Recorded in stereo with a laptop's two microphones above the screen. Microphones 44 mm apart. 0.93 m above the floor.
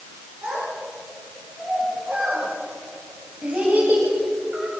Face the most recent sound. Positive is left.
turn(degrees=-30)  # may be behind; listen again after turning